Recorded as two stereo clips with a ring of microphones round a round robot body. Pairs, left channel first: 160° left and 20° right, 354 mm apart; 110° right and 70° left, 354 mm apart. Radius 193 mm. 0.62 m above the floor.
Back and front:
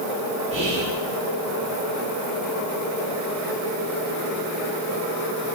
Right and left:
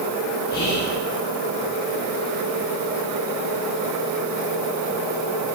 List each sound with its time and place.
0.5 s whispering: 90° right, 1.4 m